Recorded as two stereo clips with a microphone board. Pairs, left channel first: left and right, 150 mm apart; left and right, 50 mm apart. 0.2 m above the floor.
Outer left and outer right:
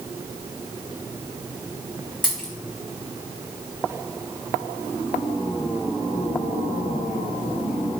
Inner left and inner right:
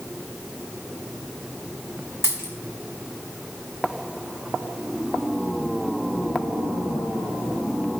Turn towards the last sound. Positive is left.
turn(degrees=65)  # may be behind; listen again after turning